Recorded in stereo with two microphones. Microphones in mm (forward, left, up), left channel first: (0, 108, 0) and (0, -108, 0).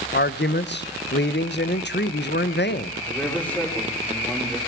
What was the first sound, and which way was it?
A man speaking, 55° left (ahead or behind).